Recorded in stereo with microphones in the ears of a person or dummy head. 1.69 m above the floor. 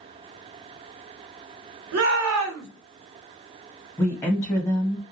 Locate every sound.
1.9 s a shout: 80° right, 1.0 m
4.0 s a woman speaking: 15° left (ahead or behind), 1.5 m